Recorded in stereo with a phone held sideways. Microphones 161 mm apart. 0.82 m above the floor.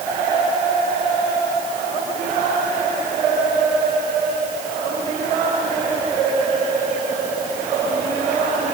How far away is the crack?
No crack in this recording.